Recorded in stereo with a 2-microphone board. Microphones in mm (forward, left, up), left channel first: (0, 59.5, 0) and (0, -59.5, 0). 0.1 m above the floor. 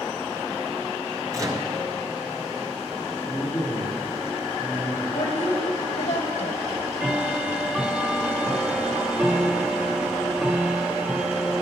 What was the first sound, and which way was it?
A microwave, 30° right (ahead or behind).